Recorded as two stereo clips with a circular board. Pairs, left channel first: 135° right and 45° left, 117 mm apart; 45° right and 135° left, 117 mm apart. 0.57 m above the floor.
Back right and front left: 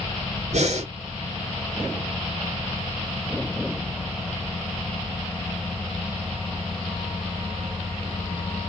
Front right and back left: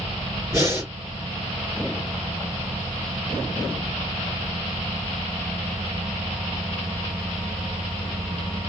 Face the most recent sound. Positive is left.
turn(degrees=65)